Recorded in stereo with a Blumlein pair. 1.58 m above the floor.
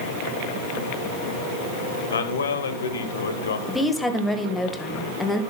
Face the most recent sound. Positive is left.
turn(degrees=5)